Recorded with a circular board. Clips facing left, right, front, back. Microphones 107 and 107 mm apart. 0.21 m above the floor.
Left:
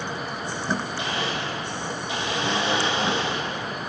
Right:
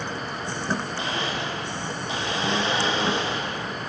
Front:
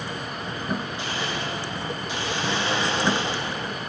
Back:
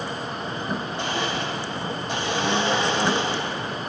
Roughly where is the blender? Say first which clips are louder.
Even, back 3 dB; behind right.